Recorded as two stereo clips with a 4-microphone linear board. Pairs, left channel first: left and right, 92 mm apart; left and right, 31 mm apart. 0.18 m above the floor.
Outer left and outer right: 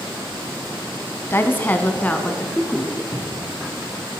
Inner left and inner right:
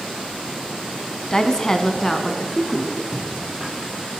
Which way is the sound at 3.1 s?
40° left (ahead or behind).